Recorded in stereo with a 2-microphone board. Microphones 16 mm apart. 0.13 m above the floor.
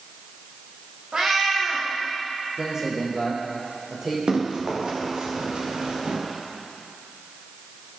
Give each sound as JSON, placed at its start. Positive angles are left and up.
{"t": 1.1, "sound": "a cat meowing", "side_deg": -55, "distance_m": 5.0}
{"t": 2.6, "sound": "a man speaking", "side_deg": -25, "distance_m": 5.5}
{"t": 4.3, "sound": "running footsteps", "side_deg": -60, "distance_m": 6.0}